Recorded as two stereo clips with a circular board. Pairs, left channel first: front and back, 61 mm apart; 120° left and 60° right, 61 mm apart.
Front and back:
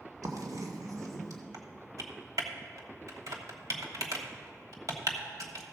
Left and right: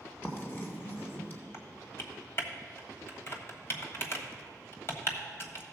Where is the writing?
175° left, 2.0 m.